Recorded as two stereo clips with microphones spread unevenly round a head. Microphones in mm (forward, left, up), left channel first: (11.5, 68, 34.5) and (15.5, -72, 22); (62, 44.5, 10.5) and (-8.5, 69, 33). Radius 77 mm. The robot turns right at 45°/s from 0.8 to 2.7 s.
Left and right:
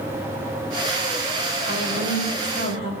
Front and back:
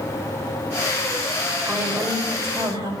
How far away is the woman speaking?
About 5.5 m.